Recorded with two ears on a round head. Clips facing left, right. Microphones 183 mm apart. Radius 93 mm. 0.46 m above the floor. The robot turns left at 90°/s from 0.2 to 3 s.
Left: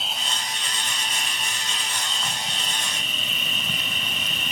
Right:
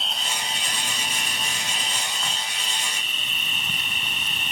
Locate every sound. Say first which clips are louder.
0.0 s an insect: even; 5° left; by 4.5 s 110° left